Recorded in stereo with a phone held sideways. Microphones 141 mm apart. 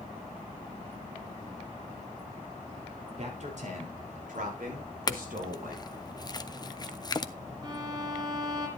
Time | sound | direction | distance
3.2 | a man speaking | 55° right (ahead or behind) | 4 m
5.1 | a clink | 30° left (ahead or behind) | 0.6 m
7.6 | a violin | 30° right (ahead or behind) | 3.5 m